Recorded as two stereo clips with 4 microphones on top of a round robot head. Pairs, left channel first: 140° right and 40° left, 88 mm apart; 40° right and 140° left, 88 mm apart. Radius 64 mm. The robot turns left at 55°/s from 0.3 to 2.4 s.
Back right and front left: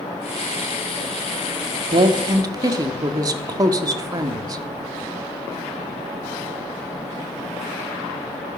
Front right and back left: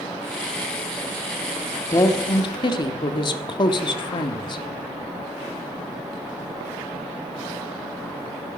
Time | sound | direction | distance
1.9 | a woman speaking | 20° left | 1.4 m